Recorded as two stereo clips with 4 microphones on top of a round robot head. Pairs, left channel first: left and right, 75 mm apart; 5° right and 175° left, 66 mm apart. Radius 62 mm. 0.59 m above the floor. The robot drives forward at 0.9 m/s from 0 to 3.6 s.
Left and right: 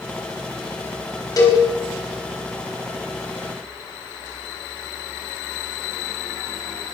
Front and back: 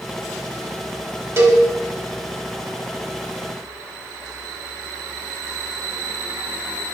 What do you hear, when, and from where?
1.4 s a cowbell: 130° left, 4 m